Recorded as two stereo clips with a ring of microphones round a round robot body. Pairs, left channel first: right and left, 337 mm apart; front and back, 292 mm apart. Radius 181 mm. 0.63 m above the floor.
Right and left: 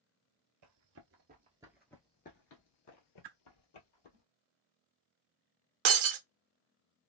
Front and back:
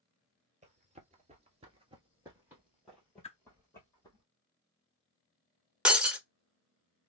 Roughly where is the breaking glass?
Left.